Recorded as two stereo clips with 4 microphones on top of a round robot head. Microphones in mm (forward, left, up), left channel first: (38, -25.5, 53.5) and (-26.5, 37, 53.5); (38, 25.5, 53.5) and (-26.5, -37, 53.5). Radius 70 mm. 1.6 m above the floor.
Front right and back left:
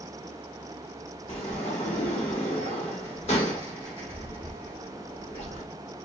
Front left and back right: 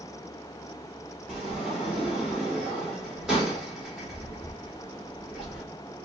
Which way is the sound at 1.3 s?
55° right.